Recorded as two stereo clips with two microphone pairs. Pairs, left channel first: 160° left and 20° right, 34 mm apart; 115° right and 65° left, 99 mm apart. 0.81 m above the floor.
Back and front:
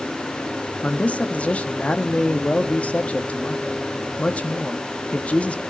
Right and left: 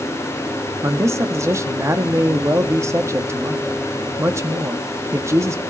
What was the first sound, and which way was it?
A man speaking, 120° left.